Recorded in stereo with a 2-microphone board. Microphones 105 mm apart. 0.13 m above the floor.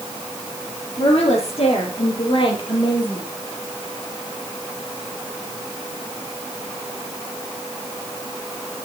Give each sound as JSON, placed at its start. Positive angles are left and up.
{"t": 1.0, "sound": "a woman speaking", "side_deg": 65, "distance_m": 4.5}